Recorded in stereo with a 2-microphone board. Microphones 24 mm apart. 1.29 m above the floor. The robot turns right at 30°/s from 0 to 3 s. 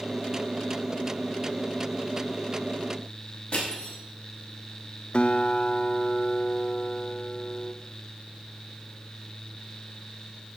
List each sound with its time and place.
3.5 s crushing: 35° left (ahead or behind), 5 m
5.1 s a guitar: 45° left (ahead or behind), 0.6 m